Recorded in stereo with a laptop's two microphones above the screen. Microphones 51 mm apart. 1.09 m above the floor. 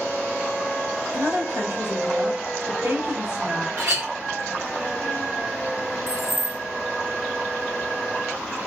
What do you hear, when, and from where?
1.1 s a woman speaking: 75° right (ahead or behind), 1.8 m
3.8 s a clink: 80° right, 1.5 m
6.1 s keys jangling: 65° right (ahead or behind), 0.5 m